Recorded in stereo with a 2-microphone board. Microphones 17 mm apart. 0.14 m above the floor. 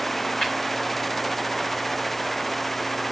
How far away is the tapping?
About 3 m.